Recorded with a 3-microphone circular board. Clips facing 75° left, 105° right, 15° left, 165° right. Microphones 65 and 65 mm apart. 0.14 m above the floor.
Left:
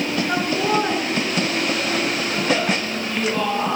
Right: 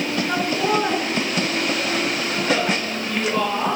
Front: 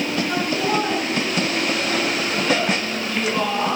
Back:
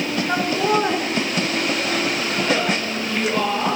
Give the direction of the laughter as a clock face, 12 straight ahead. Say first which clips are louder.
Even, back 4 dB; 7 o'clock.